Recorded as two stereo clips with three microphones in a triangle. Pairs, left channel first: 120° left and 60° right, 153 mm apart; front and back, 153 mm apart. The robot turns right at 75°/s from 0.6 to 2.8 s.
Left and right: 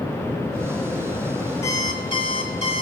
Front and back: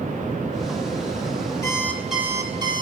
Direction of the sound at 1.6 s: 60° left.